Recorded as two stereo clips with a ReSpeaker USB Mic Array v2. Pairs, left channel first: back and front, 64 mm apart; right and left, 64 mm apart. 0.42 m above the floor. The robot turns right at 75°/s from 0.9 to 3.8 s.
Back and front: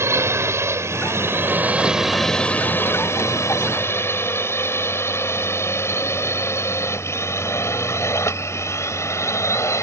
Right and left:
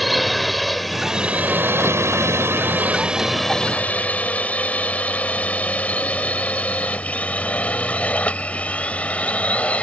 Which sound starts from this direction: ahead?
A drone, at 0.0 s.